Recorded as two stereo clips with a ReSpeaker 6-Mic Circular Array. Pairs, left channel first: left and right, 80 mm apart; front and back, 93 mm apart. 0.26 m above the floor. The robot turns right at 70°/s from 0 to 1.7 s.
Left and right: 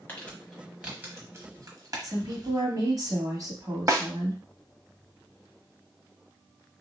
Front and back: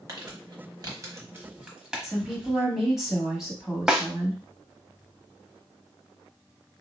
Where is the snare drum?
100° right, 0.6 m.